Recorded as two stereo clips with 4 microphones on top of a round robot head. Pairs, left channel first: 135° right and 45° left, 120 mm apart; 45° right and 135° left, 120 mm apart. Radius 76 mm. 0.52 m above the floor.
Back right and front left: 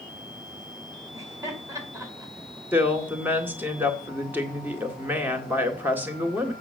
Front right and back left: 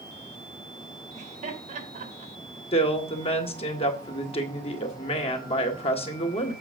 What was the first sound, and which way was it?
Laughter, 110° left.